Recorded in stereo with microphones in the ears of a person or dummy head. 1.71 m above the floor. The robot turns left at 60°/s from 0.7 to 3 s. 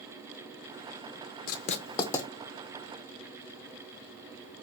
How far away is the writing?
About 0.6 m.